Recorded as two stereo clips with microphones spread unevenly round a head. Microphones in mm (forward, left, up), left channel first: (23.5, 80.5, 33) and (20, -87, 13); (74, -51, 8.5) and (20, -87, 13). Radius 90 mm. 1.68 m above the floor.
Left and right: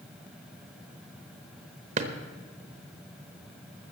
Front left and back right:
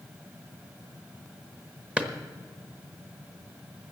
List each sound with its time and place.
2.0 s a drawer: 95° right, 1.0 m